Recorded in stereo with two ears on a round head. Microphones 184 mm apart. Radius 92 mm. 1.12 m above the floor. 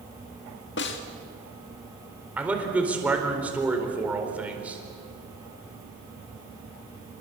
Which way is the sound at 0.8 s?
60° left (ahead or behind).